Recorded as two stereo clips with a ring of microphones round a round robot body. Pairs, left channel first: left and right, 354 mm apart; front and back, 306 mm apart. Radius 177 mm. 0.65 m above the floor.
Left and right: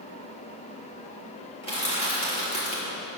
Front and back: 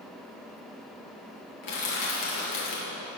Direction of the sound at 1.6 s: 15° left.